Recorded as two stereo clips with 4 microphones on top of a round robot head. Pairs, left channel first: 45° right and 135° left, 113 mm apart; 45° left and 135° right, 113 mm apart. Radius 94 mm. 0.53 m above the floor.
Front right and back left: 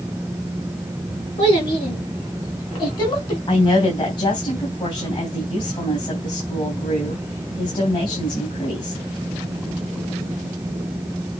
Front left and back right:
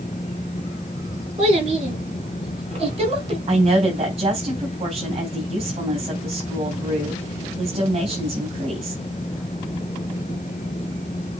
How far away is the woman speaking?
About 3.5 m.